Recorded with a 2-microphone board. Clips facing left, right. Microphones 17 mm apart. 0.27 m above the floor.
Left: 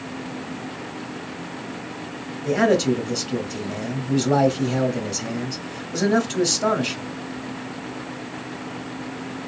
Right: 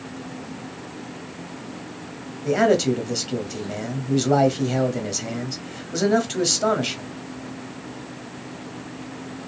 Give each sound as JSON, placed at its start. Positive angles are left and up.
{"t": 2.5, "sound": "a man speaking", "side_deg": -15, "distance_m": 1.1}